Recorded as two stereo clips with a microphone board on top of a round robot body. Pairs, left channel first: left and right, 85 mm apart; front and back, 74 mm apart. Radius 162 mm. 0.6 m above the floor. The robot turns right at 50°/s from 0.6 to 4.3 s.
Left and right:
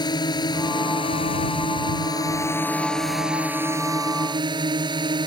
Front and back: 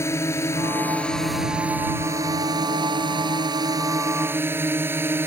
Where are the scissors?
I don't hear scissors.